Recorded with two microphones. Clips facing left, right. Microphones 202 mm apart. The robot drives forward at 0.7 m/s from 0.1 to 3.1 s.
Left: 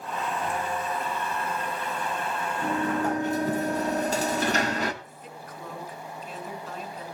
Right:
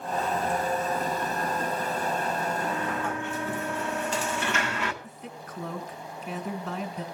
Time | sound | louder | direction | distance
2.6 | a sliding door | left 4 dB | 40° left (ahead or behind) | 1.1 m
5.0 | a woman speaking | right 2 dB | 60° right (ahead or behind) | 1.8 m